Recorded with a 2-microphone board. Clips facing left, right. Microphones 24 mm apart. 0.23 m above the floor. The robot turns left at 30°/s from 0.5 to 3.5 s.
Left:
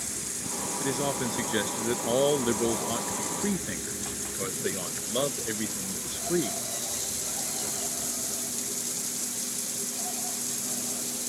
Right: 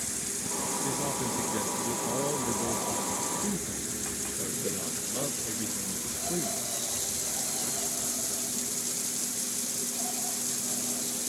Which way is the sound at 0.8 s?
145° left.